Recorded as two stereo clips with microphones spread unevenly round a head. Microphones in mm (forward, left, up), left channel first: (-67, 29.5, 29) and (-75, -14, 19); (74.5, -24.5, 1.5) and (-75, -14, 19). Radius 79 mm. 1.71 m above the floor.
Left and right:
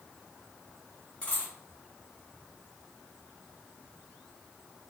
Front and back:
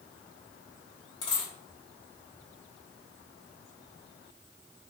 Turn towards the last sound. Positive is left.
turn(degrees=55)